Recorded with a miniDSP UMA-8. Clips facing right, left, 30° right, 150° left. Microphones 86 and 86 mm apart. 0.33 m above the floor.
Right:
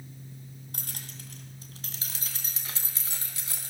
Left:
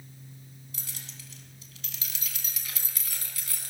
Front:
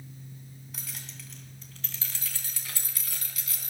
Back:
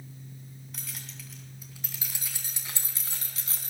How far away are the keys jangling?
About 2.5 m.